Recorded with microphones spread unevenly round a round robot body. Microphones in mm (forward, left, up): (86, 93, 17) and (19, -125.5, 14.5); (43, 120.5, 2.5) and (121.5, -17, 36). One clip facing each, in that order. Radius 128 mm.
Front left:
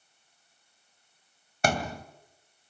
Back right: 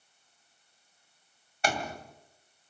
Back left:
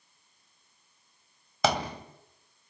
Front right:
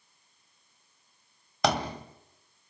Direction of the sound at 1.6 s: 30° left.